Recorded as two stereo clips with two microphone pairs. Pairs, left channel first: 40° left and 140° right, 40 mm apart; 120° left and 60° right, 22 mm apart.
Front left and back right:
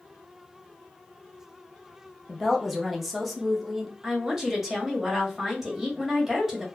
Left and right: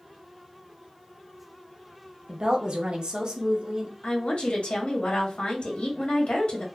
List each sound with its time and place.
2.3 s a woman speaking: 55° right, 0.7 m
4.0 s a woman speaking: 135° left, 1.2 m